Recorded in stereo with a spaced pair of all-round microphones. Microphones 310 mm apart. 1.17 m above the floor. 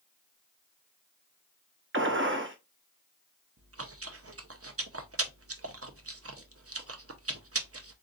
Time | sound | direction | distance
1.9 | a gunshot | 40° right (ahead or behind) | 0.8 m
3.6 | chewing | 50° right (ahead or behind) | 0.6 m